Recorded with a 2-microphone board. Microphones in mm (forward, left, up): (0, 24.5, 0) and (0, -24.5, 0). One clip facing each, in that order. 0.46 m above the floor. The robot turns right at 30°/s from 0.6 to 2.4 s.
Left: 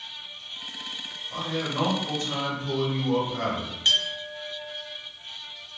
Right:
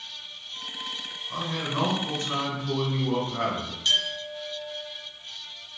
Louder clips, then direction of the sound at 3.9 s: Left 1 dB; 40° left (ahead or behind).